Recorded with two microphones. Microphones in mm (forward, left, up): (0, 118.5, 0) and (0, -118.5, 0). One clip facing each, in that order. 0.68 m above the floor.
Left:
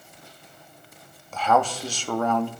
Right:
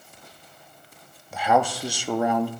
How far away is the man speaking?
About 0.7 m.